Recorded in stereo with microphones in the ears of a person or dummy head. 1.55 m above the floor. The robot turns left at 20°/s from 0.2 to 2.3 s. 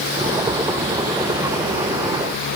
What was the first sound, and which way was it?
Only background noise.